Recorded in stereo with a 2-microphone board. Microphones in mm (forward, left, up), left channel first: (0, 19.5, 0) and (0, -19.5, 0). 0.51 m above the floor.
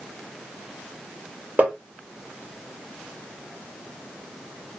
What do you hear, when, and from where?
1.6 s tapping: 40° right (ahead or behind), 1.7 m